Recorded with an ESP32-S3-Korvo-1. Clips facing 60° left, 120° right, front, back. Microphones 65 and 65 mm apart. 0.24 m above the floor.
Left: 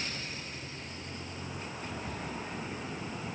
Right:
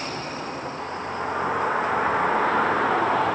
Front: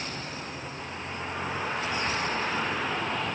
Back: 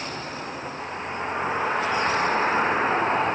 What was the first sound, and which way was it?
A vehicle, 115° right.